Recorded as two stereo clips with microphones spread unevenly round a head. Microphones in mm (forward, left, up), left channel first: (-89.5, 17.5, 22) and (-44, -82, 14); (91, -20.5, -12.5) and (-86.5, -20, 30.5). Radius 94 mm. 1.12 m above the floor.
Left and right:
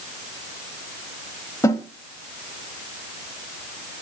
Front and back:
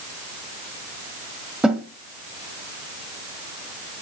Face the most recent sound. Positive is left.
turn(degrees=120)